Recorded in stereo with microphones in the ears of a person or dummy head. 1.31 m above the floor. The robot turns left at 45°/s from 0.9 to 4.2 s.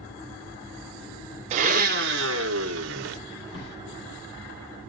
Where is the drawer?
70° left (ahead or behind), 3.5 m; by 3.8 s 60° left (ahead or behind), 3.5 m.